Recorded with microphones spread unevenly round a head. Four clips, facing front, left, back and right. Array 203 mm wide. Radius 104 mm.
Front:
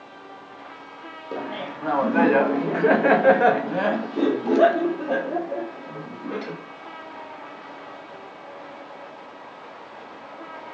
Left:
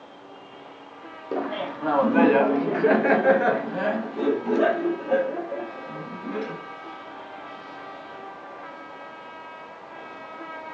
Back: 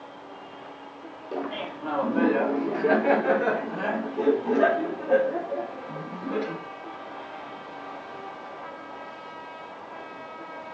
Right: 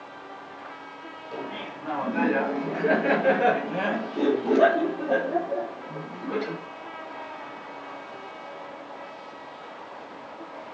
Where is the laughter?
65° left, 1.7 m; by 6.6 s 40° right, 3.5 m.